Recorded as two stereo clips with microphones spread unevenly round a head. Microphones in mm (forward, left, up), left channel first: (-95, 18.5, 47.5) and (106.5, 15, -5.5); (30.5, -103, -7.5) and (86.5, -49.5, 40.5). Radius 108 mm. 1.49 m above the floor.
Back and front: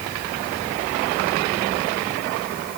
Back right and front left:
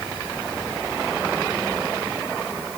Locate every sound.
Only background noise.